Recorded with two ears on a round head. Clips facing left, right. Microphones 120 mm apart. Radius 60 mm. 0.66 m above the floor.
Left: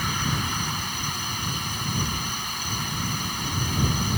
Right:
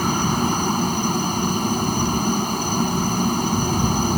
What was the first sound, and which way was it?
A helicopter, 35° right (ahead or behind).